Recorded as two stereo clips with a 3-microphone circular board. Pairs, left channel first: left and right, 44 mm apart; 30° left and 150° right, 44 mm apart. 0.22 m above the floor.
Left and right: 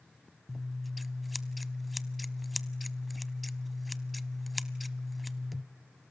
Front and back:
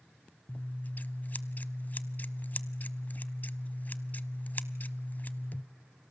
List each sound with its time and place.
0.5 s scissors: straight ahead, 0.6 m